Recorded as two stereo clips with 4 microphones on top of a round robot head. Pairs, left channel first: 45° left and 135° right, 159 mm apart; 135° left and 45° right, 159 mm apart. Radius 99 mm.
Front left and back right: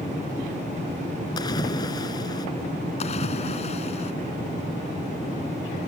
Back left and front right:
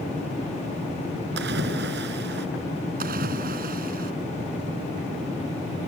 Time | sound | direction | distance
1.4 | a splash | 25° right | ?
3.0 | a splash | 10° right | ?